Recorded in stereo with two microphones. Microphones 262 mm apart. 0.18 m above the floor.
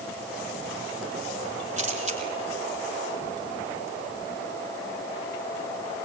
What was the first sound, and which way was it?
A camera shutter, 25° right (ahead or behind).